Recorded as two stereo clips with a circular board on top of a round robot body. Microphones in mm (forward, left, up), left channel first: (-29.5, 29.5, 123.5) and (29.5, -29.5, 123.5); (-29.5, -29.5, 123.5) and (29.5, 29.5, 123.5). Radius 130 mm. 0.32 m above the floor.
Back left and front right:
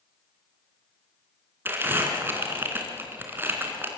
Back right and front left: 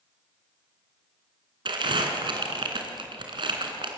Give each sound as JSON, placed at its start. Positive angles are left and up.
{"t": 1.6, "sound": "crumpling", "azimuth_deg": 20, "distance_m": 3.0}